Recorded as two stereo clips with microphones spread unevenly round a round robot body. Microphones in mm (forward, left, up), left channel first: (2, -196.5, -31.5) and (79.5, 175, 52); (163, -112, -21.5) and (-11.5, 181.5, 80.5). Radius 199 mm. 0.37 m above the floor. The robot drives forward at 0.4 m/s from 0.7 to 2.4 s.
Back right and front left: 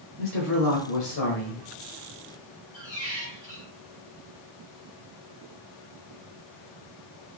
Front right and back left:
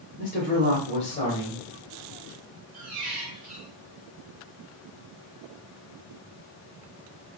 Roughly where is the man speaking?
Right.